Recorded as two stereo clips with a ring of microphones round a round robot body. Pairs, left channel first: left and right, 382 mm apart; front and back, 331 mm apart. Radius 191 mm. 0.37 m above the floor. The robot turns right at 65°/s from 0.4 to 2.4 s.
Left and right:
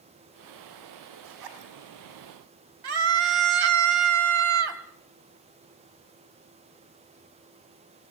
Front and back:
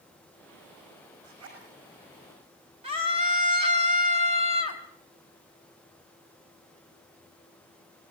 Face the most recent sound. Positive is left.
turn(degrees=-105)